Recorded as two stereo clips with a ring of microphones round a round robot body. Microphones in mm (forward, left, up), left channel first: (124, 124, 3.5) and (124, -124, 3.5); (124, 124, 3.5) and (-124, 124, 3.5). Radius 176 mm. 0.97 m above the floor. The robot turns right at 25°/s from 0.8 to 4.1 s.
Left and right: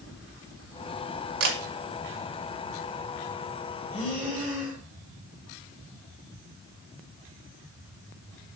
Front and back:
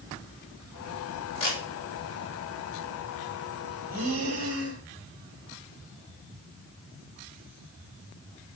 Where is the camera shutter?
75° right, 2 m; by 1.6 s 70° right, 2 m.